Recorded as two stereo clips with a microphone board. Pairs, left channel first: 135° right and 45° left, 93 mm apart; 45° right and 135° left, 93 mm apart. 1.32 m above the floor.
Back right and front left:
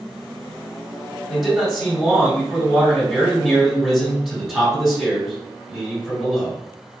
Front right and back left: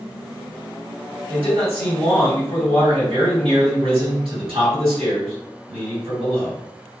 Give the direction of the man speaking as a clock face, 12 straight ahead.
8 o'clock.